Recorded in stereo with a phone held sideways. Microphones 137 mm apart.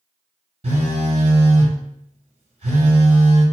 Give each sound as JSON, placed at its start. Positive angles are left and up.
{"t": 0.6, "sound": "a phone buzzing", "side_deg": -50, "distance_m": 1.5}